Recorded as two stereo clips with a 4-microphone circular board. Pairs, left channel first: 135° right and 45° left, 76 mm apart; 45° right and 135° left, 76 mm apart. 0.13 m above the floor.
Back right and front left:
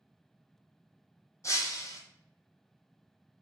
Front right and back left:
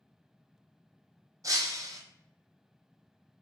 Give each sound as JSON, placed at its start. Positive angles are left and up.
{"t": 1.4, "sound": "breaking glass", "azimuth_deg": 180, "distance_m": 0.6}